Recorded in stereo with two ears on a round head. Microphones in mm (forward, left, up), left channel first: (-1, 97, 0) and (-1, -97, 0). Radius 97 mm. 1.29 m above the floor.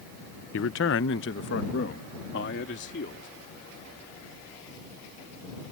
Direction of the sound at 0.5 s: 65° left (ahead or behind).